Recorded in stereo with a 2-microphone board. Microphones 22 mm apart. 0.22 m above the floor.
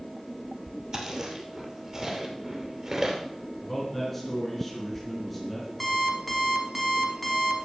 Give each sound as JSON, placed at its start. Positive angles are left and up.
{"t": 0.9, "sound": "chewing", "side_deg": -30, "distance_m": 2.5}
{"t": 3.6, "sound": "a man speaking", "side_deg": 5, "distance_m": 3.0}
{"t": 5.8, "sound": "an alarm clock", "side_deg": 0, "distance_m": 1.9}